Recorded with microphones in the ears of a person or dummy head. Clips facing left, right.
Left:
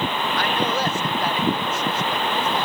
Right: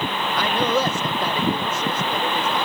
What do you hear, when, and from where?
0.4 s a man speaking: 70° right (ahead or behind); by 2.7 s 80° right